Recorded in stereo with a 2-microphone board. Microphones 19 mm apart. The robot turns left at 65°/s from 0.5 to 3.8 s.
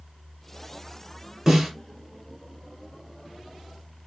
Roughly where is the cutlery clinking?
No cutlery clinking in this recording.